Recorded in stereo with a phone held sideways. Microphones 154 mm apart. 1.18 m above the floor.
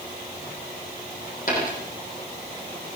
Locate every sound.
1.5 s a dropped coin: 60° left (ahead or behind), 8.5 m